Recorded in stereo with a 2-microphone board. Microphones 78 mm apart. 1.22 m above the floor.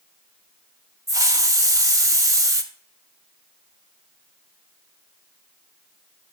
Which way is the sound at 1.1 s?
45° right (ahead or behind).